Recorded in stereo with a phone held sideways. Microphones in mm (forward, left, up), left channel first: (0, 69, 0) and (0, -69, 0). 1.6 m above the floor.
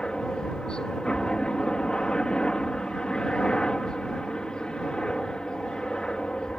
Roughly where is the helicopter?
Centre.